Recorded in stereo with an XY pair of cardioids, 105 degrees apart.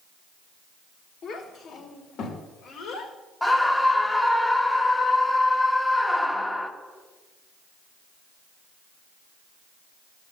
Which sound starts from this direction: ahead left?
A child speaking, at 1.2 s.